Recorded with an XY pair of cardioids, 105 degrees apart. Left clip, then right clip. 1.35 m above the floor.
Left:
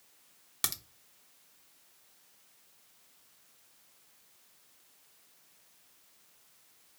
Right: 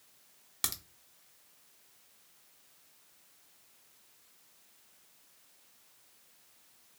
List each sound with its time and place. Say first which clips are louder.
0.6 s a crack: left 1 dB; 10° left, 0.8 m